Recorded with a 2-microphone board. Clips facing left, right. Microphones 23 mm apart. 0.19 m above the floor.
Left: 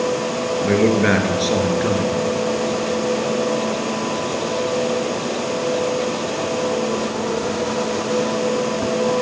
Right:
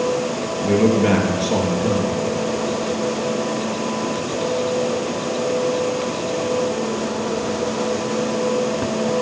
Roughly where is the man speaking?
Left.